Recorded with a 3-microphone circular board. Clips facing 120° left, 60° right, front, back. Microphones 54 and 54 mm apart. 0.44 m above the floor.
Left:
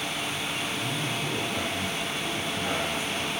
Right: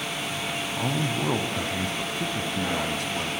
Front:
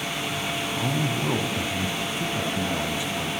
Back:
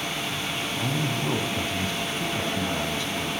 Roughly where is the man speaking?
Right.